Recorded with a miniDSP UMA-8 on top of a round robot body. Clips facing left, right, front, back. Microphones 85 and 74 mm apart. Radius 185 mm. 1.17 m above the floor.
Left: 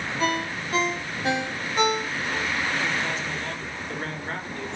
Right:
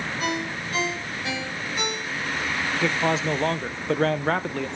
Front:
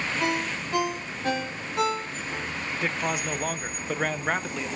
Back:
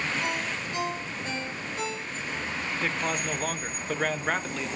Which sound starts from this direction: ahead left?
A ringtone, at 0.2 s.